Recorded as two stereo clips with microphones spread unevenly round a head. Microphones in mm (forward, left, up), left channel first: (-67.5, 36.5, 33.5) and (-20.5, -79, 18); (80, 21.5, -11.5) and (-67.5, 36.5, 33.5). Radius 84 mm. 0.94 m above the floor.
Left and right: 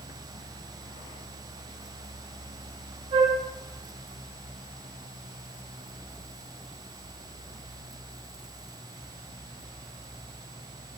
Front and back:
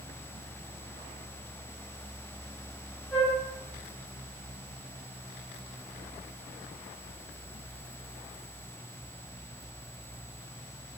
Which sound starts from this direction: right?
A flute, at 3.1 s.